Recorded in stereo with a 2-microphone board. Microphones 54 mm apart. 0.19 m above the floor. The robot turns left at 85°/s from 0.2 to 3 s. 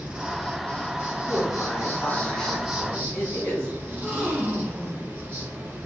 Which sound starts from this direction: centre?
A gasp, at 3.9 s.